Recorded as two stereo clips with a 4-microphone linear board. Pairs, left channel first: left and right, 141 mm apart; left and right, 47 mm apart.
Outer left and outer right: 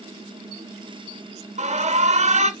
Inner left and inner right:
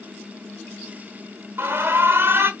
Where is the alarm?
55° right (ahead or behind), 0.7 m.